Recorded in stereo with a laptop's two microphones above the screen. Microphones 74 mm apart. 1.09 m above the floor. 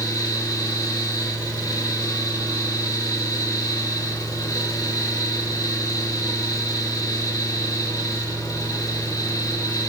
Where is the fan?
50° left (ahead or behind), 1.6 m.